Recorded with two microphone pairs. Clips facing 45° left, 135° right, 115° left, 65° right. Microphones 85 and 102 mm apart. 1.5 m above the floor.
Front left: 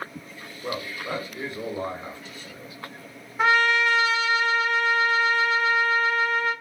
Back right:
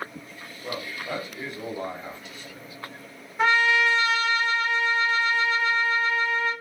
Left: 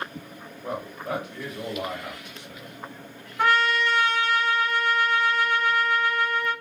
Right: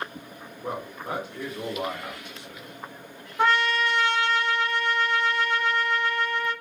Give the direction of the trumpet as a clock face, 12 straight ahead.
1 o'clock.